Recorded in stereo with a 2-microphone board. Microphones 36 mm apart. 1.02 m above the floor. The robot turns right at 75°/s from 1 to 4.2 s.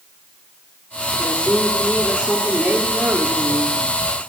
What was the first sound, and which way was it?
A man speaking, 125° left.